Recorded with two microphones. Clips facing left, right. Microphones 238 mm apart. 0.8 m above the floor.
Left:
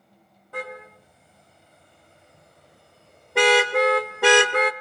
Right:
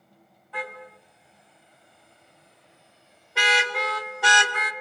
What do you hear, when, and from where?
0.5 s a car horn: 45° left (ahead or behind), 3.5 m; by 4.7 s 65° left (ahead or behind), 1.2 m